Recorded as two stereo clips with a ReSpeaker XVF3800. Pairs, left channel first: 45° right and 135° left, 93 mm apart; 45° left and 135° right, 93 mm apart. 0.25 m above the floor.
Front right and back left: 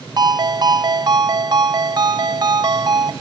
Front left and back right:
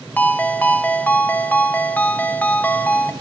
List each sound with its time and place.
0.2 s a ringtone: 110° left, 0.9 m